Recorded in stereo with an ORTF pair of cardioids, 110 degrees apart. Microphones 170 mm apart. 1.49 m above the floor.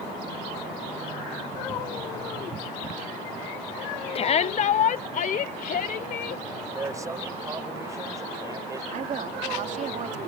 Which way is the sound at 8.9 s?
45° right.